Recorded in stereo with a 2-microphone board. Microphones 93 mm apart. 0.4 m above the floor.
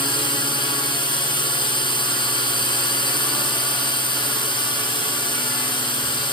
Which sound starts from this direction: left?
A drone, at 0.0 s.